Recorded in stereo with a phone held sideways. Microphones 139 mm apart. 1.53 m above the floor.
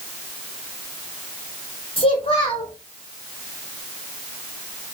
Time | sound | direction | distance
2.0 | a child speaking | 40° left (ahead or behind) | 1.6 m